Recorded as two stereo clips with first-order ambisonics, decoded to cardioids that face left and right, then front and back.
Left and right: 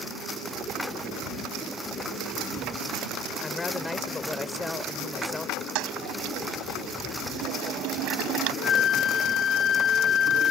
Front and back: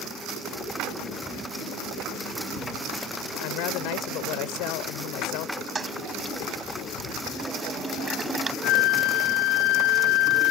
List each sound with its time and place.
3.4 s a woman speaking: 10° left
5.8 s a toilet flushing: 110° right
8.6 s a flute: 30° left